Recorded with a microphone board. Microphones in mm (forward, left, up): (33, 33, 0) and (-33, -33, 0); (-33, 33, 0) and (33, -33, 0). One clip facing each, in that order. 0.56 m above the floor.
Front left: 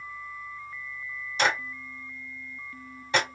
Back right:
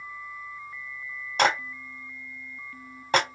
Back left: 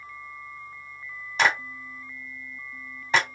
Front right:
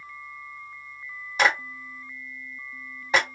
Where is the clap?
125° right, 1.9 m.